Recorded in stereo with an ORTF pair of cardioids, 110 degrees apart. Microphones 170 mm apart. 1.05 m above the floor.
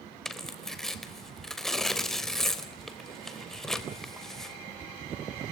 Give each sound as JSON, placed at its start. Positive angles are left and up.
{"t": 0.2, "sound": "tearing paper", "azimuth_deg": 5, "distance_m": 3.5}